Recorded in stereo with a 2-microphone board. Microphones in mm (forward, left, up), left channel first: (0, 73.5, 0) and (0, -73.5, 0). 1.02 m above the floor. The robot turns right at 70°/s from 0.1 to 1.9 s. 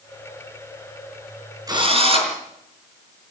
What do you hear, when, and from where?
1.7 s a drill: 25° right (ahead or behind), 6 m; by 2.4 s 40° right (ahead or behind), 6 m